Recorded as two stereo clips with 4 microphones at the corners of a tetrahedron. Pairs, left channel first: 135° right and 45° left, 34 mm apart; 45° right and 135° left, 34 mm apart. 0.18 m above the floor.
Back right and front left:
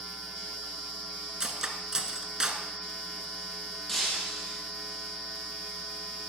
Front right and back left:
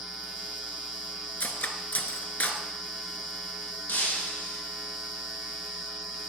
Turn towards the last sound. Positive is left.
turn(degrees=-55)